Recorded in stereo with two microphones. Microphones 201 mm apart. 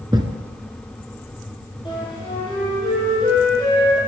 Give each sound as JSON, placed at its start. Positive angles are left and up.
{"t": 0.1, "sound": "a thud", "side_deg": -20, "distance_m": 1.6}
{"t": 1.9, "sound": "a flute", "side_deg": 25, "distance_m": 6.0}